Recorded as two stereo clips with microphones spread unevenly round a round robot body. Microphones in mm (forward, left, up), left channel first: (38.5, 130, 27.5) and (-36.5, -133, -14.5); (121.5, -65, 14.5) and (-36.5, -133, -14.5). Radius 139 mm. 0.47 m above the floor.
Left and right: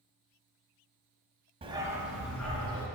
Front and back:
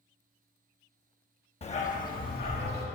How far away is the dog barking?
About 0.7 m.